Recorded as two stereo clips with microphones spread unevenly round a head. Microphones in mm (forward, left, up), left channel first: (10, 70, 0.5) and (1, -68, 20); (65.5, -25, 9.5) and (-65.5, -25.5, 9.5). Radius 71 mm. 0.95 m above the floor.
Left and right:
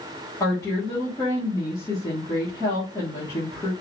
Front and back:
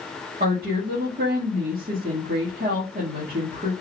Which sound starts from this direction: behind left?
A woman speaking, at 0.4 s.